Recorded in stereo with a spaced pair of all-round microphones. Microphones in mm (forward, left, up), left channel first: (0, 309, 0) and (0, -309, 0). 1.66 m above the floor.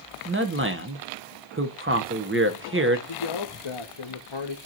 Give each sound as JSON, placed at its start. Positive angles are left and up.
{"t": 0.2, "sound": "a man speaking", "side_deg": -20, "distance_m": 1.0}
{"t": 3.1, "sound": "a man speaking", "side_deg": 45, "distance_m": 0.8}